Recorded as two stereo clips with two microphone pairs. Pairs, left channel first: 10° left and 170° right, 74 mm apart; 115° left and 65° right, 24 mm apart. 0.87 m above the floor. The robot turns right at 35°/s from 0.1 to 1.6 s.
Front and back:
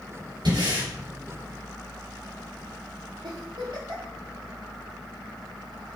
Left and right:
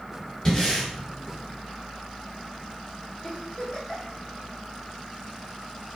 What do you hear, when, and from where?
0.5 s breathing: 175° left, 3 m; by 0.9 s 170° right, 3 m
3.2 s a giggle: 175° right, 2.5 m